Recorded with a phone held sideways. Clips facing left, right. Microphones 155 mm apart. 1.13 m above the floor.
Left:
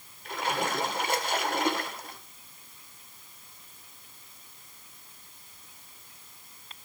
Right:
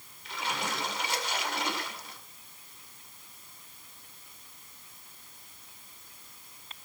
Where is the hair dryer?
No hair dryer in this recording.